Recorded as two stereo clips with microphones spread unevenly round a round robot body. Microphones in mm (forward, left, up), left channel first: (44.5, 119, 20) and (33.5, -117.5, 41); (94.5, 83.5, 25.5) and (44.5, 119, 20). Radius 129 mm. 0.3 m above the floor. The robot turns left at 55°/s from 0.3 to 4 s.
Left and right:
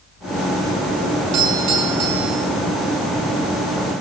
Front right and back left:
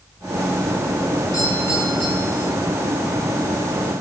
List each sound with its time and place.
1.3 s a doorbell: 80° right, 3.5 m; by 2.5 s 145° right, 3.5 m